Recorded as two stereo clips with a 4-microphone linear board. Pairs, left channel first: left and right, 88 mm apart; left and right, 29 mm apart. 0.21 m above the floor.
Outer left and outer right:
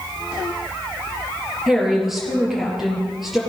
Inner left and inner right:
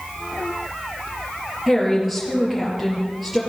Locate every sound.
1.7 s a woman speaking: centre (ahead or behind), 3.5 m